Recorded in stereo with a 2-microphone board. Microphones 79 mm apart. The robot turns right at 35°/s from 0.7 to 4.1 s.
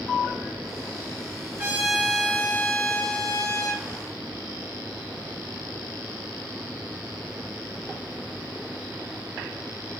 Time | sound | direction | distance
1.6 | a trumpet | 25° right | 5.5 m